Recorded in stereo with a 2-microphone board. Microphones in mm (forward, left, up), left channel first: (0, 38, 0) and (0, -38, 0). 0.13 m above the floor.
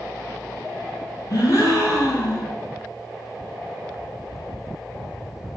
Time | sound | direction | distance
1.3 | a gasp | 55° left (ahead or behind) | 0.8 m